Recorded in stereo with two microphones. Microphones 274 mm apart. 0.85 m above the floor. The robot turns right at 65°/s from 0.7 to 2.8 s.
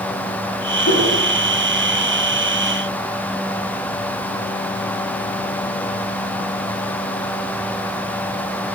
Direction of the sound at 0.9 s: 60° left (ahead or behind).